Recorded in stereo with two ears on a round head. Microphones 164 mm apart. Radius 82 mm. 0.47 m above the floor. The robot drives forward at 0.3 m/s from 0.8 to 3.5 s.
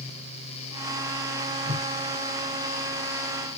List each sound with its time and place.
1.6 s a whoosh: 55° right (ahead or behind), 1.1 m